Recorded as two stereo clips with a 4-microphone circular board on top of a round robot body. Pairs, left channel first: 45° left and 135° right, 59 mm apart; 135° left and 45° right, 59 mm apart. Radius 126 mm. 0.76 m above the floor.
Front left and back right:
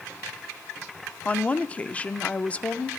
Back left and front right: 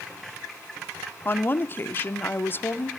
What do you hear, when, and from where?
1.2 s a woman speaking: 100° left, 0.7 m